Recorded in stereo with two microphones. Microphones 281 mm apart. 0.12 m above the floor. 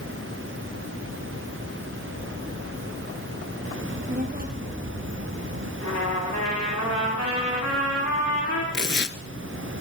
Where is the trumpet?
80° left, 7.5 m.